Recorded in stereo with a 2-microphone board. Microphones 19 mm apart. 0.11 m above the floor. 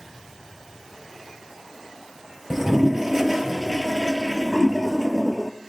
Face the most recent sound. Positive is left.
turn(degrees=-15)  # may be behind; listen again after turning